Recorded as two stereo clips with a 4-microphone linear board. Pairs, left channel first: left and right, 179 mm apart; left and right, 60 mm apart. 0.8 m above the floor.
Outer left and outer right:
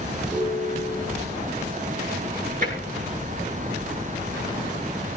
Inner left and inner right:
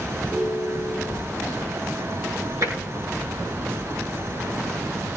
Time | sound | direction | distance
0.3 | a ringtone | 35° right (ahead or behind) | 8 m
2.6 | tapping | 50° right (ahead or behind) | 8.5 m